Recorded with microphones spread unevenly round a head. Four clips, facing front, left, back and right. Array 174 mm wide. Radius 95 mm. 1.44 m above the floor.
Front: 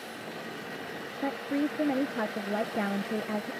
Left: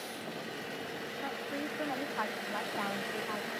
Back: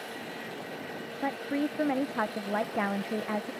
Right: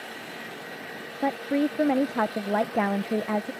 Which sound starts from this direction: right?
A woman speaking, at 1.2 s.